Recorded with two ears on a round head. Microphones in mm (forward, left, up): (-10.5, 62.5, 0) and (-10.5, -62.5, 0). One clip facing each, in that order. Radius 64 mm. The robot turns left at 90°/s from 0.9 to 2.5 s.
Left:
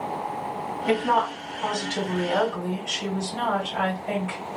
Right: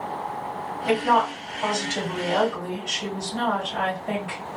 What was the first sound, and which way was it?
A woman speaking, 35° right.